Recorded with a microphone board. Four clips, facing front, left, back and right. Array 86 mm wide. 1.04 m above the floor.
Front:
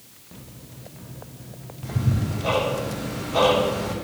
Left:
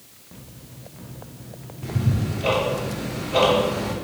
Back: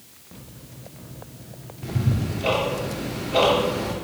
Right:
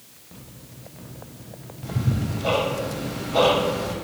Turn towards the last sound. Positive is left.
turn(degrees=135)